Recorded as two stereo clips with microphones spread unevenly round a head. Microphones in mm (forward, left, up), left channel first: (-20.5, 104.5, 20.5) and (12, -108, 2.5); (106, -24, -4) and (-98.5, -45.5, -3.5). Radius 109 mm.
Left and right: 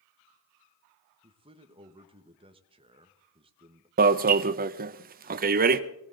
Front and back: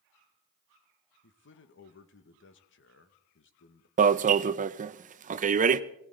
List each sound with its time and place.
1.2 s a man speaking: 20° right, 1.0 m
4.0 s an alarm: 125° right, 0.5 m